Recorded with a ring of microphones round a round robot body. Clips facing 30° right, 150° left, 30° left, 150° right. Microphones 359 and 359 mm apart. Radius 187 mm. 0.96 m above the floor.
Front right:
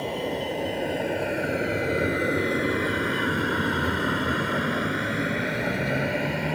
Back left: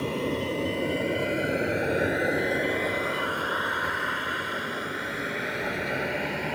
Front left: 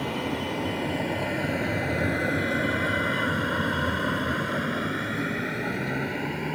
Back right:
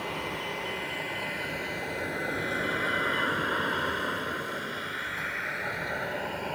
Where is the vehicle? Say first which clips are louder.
Back left 1 dB, front left 7 dB; 75° left; by 6.6 s 30° right.